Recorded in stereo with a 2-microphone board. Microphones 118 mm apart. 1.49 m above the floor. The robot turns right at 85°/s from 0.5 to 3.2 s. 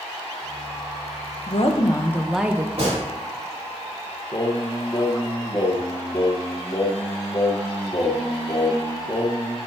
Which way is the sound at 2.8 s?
55° right (ahead or behind).